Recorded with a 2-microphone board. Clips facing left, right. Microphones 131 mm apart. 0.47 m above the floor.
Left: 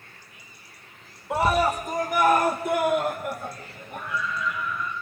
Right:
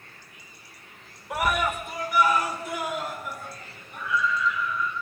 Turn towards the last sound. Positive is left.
turn(degrees=50)  # may be behind; listen again after turning